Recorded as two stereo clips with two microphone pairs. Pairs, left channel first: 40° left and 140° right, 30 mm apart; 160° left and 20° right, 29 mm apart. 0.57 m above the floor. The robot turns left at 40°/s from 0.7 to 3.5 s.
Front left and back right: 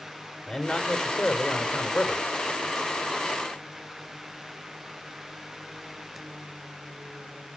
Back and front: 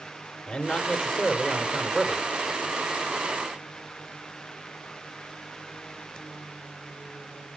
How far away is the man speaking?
About 2 m.